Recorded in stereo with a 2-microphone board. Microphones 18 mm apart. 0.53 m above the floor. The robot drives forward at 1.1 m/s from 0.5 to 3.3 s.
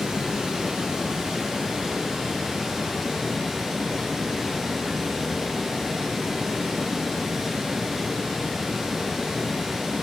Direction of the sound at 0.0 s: 75° right (ahead or behind).